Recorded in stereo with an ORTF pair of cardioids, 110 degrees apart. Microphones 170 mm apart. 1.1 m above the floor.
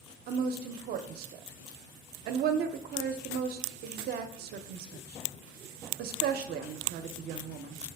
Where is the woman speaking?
60° right, 0.6 m.